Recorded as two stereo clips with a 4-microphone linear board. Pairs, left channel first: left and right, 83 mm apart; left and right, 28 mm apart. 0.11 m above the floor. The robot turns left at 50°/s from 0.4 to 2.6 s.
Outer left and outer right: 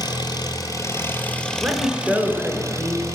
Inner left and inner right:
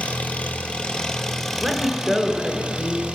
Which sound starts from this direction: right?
A woman speaking, at 1.6 s.